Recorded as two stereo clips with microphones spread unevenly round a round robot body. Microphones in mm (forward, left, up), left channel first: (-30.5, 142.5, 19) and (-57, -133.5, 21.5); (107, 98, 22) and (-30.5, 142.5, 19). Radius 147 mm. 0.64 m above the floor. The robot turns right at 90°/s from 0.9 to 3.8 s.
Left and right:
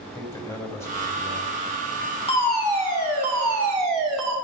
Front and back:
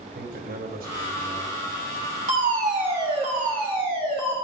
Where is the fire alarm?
150° left, 3.5 m; by 4.3 s 70° right, 3.5 m.